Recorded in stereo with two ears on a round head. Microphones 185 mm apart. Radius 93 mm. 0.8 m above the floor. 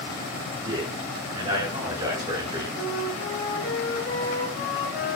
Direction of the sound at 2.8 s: 60° left (ahead or behind).